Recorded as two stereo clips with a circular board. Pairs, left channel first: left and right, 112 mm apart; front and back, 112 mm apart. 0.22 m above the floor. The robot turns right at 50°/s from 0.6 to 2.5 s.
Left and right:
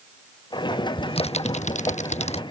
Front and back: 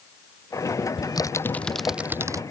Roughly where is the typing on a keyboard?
Ahead left.